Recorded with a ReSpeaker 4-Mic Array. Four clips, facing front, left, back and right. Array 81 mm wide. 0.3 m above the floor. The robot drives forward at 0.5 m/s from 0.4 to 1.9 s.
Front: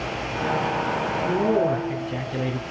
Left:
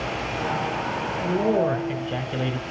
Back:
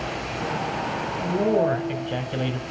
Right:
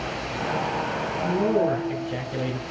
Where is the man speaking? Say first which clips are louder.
Even, back 1 dB; 140° left, 1.3 m; by 2.6 s 150° left, 1.5 m.